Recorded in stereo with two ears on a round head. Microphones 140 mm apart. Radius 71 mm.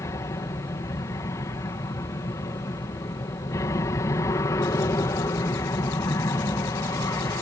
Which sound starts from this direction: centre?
An aircraft, at 0.0 s.